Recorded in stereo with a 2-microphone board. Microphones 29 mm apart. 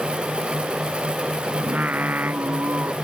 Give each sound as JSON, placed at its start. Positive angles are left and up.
{"t": 1.6, "sound": "singing", "side_deg": -75}